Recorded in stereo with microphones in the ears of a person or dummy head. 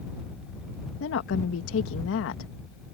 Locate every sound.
1.0 s a woman speaking: 70° left (ahead or behind)